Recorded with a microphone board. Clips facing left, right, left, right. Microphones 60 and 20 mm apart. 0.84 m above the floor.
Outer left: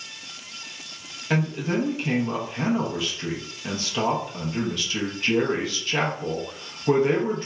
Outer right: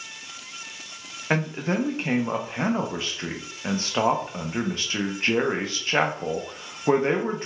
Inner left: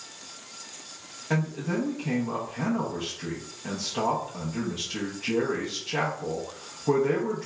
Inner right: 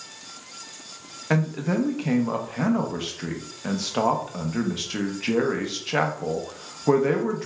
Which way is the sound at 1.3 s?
35° right (ahead or behind).